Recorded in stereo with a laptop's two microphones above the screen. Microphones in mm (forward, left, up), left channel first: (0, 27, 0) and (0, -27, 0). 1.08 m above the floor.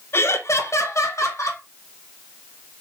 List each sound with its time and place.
0.1 s laughter: 50° left (ahead or behind), 0.5 m; by 1.6 s 65° left (ahead or behind), 1.5 m